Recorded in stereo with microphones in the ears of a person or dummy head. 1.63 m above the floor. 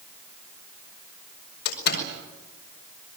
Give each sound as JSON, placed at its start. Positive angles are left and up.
{"t": 1.6, "sound": "a door slam", "side_deg": 65, "distance_m": 5.0}